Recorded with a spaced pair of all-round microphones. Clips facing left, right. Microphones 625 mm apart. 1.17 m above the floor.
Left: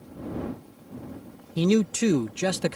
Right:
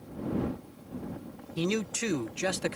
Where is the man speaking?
65° left (ahead or behind).